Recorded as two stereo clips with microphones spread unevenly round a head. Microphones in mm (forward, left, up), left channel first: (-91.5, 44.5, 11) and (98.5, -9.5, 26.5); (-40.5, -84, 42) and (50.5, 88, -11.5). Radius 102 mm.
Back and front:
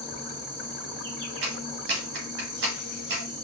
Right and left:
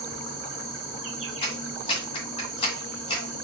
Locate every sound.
0.0 s an insect: straight ahead, 2.5 m
1.4 s a clap: 55° right, 1.7 m